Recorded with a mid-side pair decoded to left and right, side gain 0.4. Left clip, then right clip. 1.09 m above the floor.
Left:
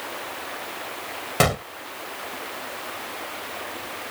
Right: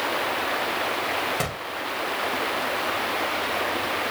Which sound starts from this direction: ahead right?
Running water, at 0.0 s.